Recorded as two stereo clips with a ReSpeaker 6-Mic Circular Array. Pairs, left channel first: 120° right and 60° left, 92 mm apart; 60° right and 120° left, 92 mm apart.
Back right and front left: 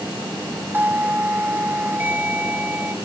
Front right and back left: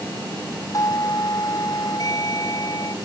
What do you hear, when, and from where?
0.7 s a doorbell: 10° right